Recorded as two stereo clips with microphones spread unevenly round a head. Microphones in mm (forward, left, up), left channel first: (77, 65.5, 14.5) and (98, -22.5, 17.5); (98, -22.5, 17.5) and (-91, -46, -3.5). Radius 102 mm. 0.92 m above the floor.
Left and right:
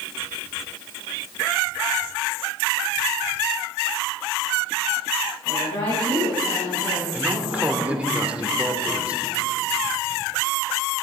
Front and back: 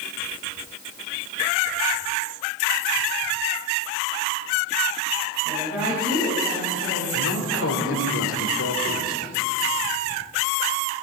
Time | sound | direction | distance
5.5 | a woman speaking | 100° left | 6.5 m
7.1 | a man speaking | straight ahead | 3 m